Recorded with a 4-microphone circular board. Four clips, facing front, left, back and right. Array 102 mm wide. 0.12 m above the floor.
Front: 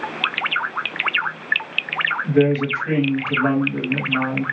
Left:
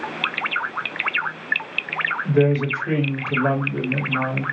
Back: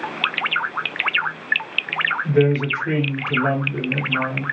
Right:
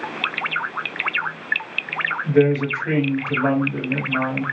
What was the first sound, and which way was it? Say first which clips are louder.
A woman speaking: right 2 dB, front 1 dB; 85° right.